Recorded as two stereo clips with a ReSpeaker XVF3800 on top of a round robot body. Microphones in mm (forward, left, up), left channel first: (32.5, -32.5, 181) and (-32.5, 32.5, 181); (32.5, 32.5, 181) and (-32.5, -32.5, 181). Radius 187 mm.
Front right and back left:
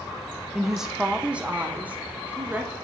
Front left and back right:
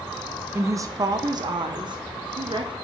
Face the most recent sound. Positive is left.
turn(degrees=-155)